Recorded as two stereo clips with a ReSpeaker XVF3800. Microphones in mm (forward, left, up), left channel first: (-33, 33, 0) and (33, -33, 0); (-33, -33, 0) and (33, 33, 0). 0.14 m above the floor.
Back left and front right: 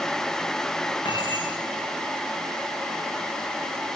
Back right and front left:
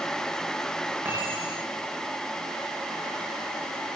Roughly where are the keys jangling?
Left.